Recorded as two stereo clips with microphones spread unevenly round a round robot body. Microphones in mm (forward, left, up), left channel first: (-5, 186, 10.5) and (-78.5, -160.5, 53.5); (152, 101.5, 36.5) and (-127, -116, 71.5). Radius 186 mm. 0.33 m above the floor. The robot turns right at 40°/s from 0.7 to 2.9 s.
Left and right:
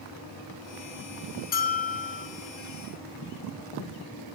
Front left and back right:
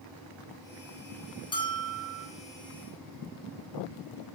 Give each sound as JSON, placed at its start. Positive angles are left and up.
{"t": 1.5, "sound": "a bell", "azimuth_deg": 90, "distance_m": 0.9}